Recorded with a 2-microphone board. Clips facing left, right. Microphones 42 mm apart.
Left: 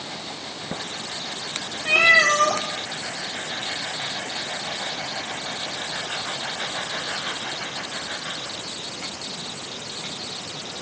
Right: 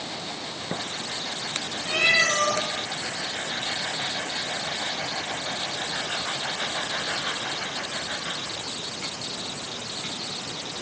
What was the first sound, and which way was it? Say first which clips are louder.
A cat meowing: left 6 dB; 50° left (ahead or behind).